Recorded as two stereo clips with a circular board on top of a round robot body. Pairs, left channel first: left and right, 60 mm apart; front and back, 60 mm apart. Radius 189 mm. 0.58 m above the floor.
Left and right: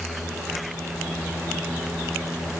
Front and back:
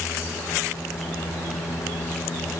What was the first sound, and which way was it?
Only background noise.